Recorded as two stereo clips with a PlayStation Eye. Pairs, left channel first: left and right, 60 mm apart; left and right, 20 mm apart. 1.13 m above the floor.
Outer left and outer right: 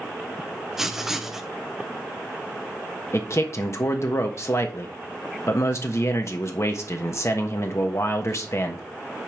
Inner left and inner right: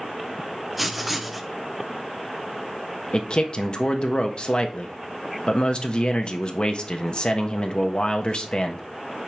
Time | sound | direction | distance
0.8 | writing | 5° right (ahead or behind) | 0.8 m
3.1 | a man speaking | 50° left (ahead or behind) | 1.2 m